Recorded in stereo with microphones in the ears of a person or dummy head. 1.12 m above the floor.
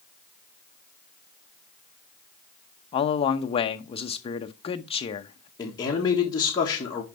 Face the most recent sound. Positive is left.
turn(degrees=20)  # may be behind; listen again after turning